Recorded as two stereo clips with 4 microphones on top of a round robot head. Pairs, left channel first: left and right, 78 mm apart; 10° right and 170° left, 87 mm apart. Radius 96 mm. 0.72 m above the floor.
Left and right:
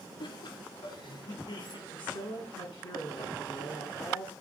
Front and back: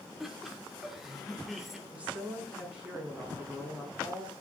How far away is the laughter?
About 2.5 m.